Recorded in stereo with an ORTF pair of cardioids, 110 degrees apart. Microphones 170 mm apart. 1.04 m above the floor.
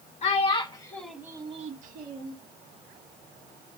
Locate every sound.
0.2 s a child speaking: 40° left, 1.1 m; by 2.4 s 75° right, 1.0 m